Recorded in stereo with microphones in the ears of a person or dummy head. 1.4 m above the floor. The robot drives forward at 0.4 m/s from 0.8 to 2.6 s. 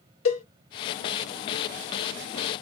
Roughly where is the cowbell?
Left.